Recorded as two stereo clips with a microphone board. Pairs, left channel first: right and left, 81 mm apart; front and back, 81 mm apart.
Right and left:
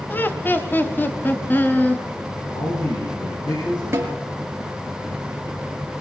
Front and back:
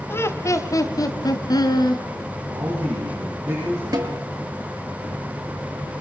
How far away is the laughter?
About 1.6 m.